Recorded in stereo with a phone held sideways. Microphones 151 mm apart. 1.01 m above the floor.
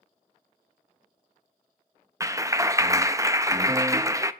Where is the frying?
I don't hear frying.